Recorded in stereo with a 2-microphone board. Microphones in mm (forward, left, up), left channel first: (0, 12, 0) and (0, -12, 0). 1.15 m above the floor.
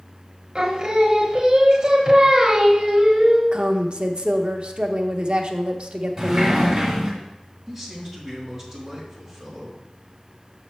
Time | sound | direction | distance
0.6 | singing | 30° right (ahead or behind) | 1.1 m
3.5 | a woman speaking | 45° right (ahead or behind) | 0.8 m
6.2 | a sliding door | 30° right (ahead or behind) | 1.8 m
7.7 | a man speaking | 20° right (ahead or behind) | 2.5 m